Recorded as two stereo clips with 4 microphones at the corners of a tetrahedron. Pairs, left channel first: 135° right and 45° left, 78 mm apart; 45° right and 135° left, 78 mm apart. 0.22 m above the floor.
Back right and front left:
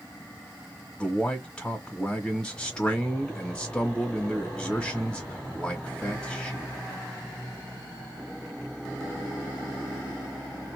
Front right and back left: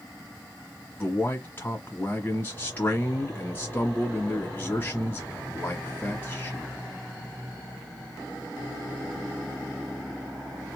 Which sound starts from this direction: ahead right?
A man speaking, at 1.0 s.